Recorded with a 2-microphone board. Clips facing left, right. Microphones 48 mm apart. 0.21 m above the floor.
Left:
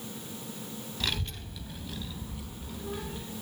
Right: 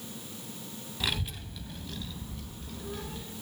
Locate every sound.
1.0 s a child speaking: 10° right (ahead or behind), 0.6 m; by 3.2 s 15° left (ahead or behind), 1.3 m